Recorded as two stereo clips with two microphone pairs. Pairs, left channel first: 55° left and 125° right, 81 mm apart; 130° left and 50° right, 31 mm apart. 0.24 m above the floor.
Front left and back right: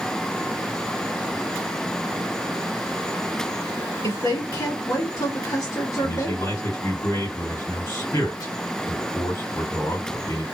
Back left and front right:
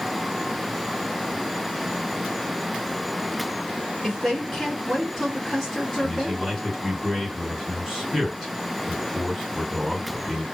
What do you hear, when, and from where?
4.0 s a woman speaking: 55° left, 1.8 m
6.0 s a man speaking: 35° left, 2.5 m